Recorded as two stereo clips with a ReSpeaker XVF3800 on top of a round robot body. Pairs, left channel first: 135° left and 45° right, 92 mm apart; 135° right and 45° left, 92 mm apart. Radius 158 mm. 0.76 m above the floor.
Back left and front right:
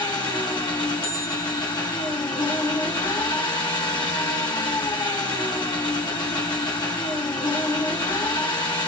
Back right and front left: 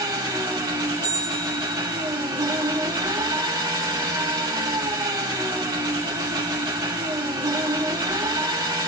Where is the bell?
155° left, 1.2 m.